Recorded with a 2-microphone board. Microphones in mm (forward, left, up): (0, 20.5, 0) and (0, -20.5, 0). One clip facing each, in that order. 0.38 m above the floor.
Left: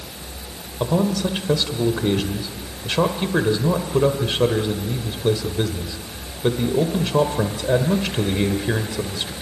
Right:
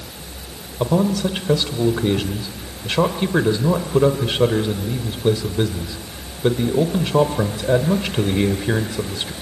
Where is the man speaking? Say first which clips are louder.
Right 2 dB; 10° right (ahead or behind), 1.3 m.